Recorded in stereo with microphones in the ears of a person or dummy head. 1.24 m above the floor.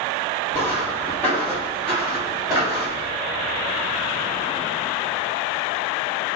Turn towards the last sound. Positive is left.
turn(degrees=-25)  # may be behind; listen again after turning